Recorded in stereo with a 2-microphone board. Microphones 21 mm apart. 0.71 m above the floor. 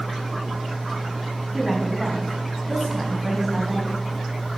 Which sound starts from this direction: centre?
A woman speaking, at 1.5 s.